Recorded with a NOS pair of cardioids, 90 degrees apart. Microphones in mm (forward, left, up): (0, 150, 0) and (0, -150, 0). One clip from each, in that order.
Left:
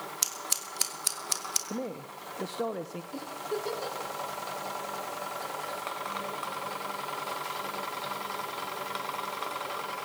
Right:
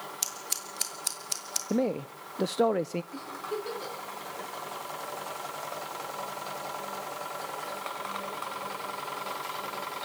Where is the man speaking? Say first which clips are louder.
Right 7 dB; 40° right, 0.7 m.